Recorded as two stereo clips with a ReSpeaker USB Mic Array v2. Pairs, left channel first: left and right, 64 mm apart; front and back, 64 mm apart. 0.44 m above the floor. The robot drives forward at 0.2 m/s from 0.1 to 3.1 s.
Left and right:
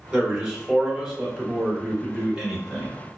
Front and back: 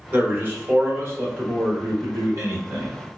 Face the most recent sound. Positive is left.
turn(degrees=-170)